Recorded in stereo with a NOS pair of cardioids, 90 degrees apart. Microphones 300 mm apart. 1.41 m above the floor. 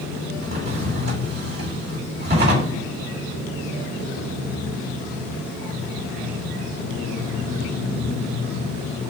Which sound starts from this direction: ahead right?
A drawer, at 0.4 s.